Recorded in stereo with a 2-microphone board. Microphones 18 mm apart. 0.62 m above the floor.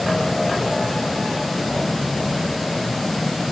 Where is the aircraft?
40° left (ahead or behind).